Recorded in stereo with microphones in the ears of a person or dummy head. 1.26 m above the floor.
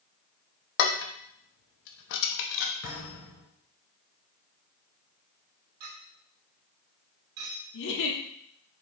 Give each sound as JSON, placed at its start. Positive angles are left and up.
{"t": 0.8, "sound": "dishes clattering", "side_deg": 60, "distance_m": 0.9}
{"t": 2.8, "sound": "a thud", "side_deg": 70, "distance_m": 3.5}
{"t": 5.8, "sound": "a clink", "side_deg": -50, "distance_m": 2.0}
{"t": 7.7, "sound": "a giggle", "side_deg": 65, "distance_m": 1.3}